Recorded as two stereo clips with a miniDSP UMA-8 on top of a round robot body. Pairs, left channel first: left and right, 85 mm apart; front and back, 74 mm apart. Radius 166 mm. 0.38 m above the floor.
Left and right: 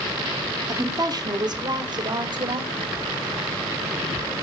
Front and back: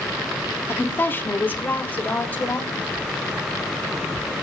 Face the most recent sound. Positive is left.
turn(degrees=-70)